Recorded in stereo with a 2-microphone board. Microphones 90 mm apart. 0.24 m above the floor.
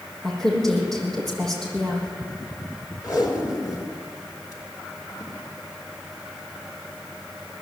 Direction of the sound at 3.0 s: 40° left (ahead or behind).